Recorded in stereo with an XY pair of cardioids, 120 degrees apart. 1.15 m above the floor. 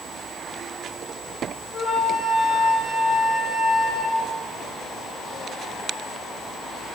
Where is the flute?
45° left, 1.4 m.